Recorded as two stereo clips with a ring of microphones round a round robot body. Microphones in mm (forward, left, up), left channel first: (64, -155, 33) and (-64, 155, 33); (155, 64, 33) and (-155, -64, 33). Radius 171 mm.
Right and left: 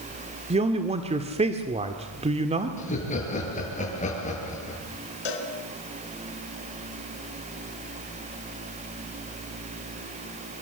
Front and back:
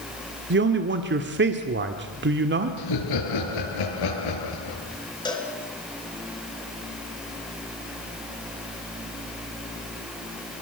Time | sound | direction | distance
0.5 | a man speaking | 170° left | 1.5 m
2.8 | laughter | straight ahead | 7.5 m
5.2 | a cowbell | 55° right | 3.5 m